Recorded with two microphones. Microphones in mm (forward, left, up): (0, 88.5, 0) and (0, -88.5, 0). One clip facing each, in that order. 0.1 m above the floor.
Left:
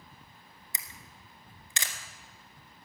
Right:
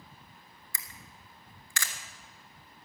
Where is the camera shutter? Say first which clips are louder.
Even; 20° left (ahead or behind), 1.2 m.